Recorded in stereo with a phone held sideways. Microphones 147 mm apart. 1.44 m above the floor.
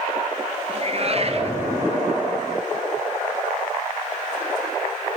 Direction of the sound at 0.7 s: 45° right (ahead or behind).